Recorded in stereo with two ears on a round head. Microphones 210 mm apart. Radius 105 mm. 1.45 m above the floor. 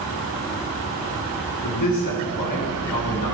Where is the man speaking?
85° left, 1.8 m.